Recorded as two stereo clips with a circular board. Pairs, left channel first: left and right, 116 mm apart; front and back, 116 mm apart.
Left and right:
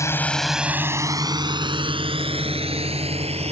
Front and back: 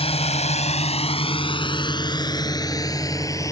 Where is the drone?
25° left; by 3.5 s 60° right.